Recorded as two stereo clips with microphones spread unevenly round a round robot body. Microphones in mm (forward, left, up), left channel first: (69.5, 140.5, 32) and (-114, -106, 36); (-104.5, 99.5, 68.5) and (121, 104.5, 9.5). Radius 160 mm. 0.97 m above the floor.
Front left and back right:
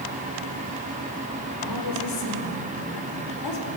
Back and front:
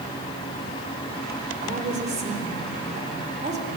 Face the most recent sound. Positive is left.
turn(degrees=60)